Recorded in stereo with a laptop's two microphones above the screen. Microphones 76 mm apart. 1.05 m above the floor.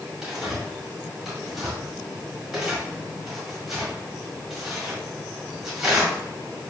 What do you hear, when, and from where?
0.2 s tearing paper: 5° right (ahead or behind), 1.8 m